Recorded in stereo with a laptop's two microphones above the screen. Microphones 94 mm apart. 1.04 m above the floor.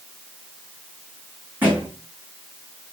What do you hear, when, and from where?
1.6 s a thud: 20° right (ahead or behind), 6 m